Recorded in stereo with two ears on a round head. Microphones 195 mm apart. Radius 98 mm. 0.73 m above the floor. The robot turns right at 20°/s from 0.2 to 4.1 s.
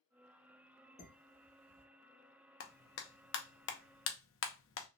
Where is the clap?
40° left (ahead or behind), 0.5 m; by 4.9 s 60° left (ahead or behind), 0.5 m.